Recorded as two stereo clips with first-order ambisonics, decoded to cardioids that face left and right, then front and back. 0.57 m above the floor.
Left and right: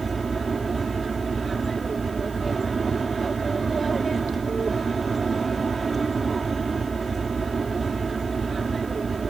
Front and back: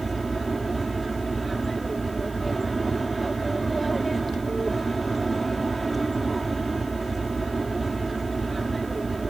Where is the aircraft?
125° right.